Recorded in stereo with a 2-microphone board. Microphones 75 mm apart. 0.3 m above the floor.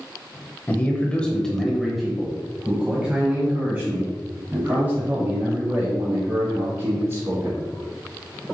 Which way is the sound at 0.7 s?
25° left (ahead or behind).